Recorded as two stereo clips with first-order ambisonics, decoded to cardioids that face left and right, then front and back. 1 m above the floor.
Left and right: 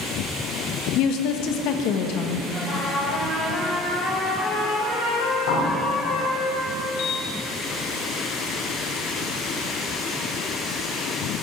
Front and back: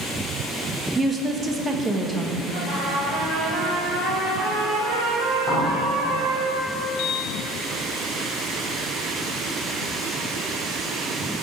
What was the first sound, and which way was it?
A woman speaking, 110° left.